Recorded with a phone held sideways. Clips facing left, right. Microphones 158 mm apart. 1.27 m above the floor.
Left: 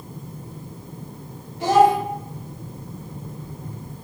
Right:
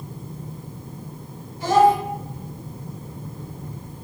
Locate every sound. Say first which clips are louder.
1.6 s a child speaking: even; 70° left (ahead or behind), 1.5 m